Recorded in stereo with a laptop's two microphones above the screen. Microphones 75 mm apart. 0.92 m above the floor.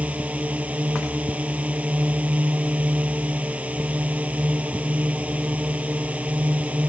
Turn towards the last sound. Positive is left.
turn(degrees=-15)  # may be behind; listen again after turning